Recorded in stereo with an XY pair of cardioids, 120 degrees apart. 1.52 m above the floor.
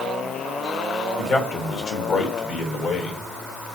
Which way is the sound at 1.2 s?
60° left.